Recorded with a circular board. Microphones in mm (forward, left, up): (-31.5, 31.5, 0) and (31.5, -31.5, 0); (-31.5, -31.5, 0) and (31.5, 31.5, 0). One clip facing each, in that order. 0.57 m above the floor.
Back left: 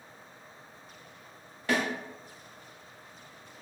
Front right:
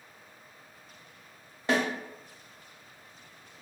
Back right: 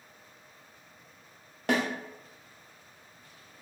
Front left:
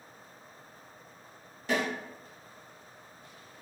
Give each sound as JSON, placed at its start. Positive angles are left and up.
{"t": 1.7, "sound": "a snare drum", "azimuth_deg": -110, "distance_m": 0.6}